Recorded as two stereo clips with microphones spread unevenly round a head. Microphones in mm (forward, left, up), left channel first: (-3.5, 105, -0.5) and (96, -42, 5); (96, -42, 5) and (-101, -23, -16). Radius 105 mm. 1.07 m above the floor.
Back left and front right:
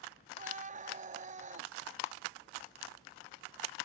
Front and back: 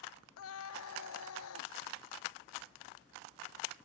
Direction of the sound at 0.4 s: 10° right.